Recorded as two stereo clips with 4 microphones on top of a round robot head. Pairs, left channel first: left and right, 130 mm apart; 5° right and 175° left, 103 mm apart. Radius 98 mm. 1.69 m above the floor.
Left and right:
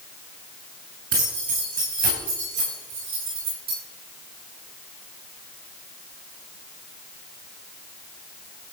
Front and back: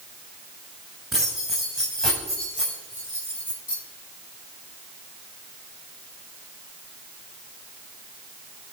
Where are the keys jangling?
100° right, 6.5 m; by 3.8 s 80° right, 9.5 m.